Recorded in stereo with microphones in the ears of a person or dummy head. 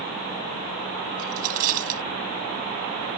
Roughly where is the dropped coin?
Right.